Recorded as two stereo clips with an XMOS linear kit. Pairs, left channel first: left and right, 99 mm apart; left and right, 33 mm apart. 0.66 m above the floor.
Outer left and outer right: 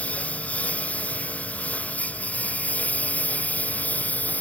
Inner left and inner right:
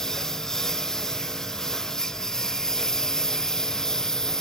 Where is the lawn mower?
15° left (ahead or behind).